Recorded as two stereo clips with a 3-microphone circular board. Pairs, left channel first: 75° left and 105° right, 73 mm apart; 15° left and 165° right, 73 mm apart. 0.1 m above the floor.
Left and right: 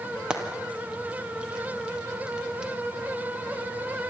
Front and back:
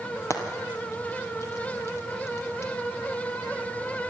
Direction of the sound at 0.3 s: 30° right.